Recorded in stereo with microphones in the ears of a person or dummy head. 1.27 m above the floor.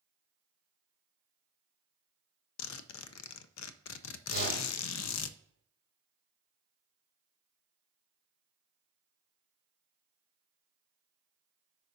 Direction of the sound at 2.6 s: 85° left.